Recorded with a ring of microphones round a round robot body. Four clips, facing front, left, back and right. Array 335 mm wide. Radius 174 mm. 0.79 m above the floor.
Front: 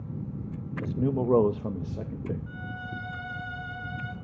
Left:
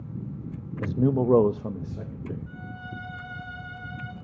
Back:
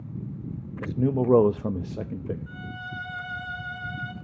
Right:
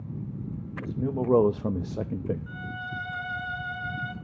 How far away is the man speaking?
About 0.7 m.